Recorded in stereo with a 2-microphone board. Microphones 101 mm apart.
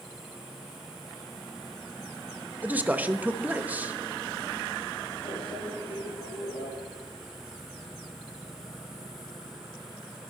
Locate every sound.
2.6 s a man speaking: 15° right (ahead or behind), 0.9 m
5.2 s a microwave: 75° left (ahead or behind), 6.5 m